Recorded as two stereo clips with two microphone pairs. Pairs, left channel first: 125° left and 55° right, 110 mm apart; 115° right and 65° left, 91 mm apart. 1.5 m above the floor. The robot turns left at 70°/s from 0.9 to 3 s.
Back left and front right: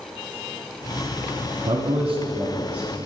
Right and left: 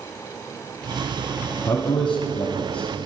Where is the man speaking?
65° right, 0.7 m; by 3.1 s 160° right, 0.7 m.